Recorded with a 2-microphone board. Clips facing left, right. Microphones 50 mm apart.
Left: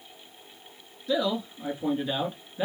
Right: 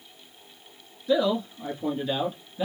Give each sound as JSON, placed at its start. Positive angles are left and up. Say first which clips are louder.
{"t": 1.1, "sound": "a man speaking", "louder": "right 4 dB", "side_deg": -5, "distance_m": 1.2}